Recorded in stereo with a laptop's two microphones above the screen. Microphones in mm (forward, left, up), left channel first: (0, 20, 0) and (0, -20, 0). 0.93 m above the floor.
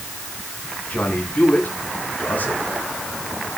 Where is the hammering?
No hammering in this recording.